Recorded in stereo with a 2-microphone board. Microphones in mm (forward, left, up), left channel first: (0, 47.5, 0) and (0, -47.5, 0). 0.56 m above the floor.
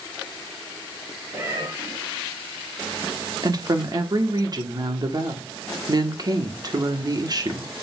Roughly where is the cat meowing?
Right.